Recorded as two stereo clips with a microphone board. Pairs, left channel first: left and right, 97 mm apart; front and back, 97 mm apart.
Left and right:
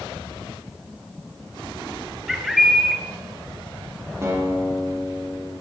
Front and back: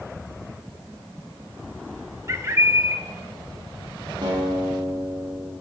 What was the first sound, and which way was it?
A bird, 175° right.